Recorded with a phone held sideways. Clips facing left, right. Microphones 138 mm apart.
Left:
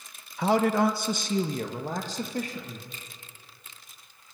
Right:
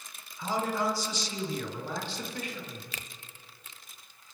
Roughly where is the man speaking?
Left.